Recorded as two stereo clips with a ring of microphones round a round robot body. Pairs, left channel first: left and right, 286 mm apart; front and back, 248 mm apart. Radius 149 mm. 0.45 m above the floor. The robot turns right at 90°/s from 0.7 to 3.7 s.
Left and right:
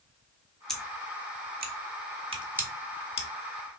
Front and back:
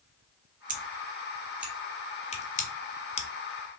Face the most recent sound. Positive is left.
turn(degrees=85)